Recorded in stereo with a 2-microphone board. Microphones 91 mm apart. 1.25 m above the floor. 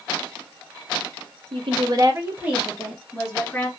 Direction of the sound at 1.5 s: 70° right (ahead or behind).